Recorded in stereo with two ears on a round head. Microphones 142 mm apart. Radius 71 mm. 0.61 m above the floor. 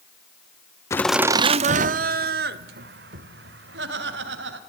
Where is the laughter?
20° left (ahead or behind), 0.6 m; by 4.6 s 80° right, 3.5 m.